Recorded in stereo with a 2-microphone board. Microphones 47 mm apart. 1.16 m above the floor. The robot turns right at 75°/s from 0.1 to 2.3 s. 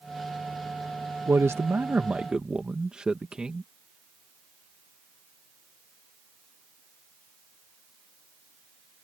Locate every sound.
1.3 s a man speaking: 100° right; by 3.7 s 20° right